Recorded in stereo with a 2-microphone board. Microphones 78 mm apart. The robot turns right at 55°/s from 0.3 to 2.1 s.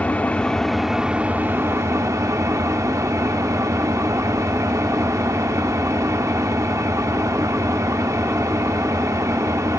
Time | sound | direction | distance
0.0 | an engine running | 155° left | 0.8 m